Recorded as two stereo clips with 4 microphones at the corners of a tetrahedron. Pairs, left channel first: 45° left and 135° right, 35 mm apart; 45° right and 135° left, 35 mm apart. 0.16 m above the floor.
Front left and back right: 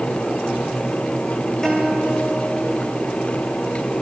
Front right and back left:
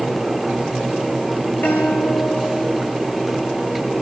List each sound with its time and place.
1.6 s a guitar: 30° right, 9 m